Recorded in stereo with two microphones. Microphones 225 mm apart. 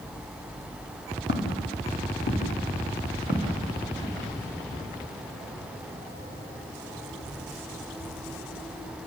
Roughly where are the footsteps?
Left.